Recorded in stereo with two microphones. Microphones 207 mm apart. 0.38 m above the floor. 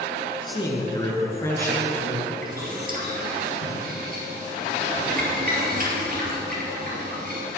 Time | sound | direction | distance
0.5 | a man speaking | 25° left (ahead or behind) | 4 m
2.4 | boiling | 45° right (ahead or behind) | 4 m